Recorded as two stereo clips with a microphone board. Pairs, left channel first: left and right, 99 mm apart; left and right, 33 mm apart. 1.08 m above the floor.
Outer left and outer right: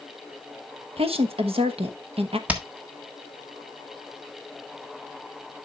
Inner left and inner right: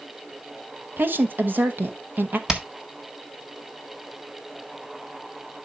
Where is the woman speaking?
65° right (ahead or behind), 1.1 m.